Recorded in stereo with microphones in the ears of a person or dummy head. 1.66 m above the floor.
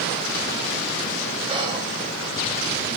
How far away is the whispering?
About 1.7 m.